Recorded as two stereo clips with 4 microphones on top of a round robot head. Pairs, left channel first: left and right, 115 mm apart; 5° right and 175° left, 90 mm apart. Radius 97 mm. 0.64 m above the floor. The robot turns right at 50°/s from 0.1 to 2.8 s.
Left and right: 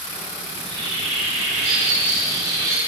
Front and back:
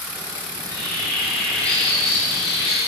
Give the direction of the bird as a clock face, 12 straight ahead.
5 o'clock.